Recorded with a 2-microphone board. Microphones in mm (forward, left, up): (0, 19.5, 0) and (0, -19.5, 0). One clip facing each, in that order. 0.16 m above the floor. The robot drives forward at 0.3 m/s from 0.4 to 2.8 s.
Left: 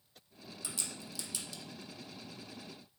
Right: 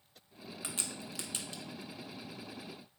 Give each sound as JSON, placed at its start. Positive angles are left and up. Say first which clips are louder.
{"t": 0.6, "sound": "a crack", "louder": "right 2 dB", "side_deg": -45, "distance_m": 0.6}